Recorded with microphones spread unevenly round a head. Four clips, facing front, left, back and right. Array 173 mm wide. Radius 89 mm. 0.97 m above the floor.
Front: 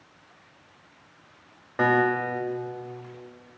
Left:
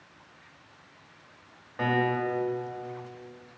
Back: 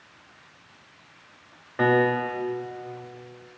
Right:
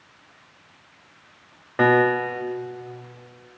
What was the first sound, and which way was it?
A piano, 95° right.